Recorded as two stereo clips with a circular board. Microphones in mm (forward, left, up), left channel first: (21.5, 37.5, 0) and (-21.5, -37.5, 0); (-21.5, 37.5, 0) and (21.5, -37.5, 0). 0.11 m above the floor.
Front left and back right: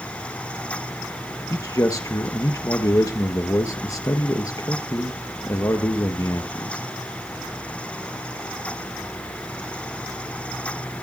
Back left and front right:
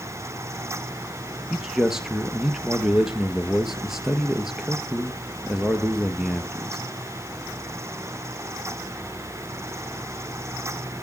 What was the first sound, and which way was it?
A man speaking, 25° left.